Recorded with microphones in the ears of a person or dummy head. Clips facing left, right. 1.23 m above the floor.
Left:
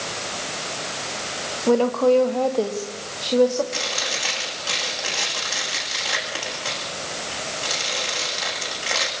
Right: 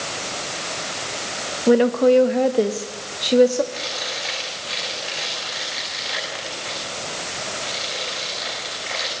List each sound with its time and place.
1.7 s a woman speaking: 15° right (ahead or behind), 1.8 m; by 3.6 s 25° right (ahead or behind), 3 m
3.7 s chewing: 55° left (ahead or behind), 9.5 m